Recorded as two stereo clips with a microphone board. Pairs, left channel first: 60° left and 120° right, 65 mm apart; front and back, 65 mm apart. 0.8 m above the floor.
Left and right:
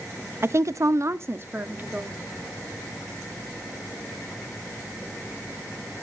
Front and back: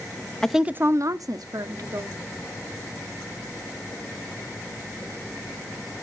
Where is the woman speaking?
80° right, 0.6 m; by 2.2 s straight behind, 1.9 m.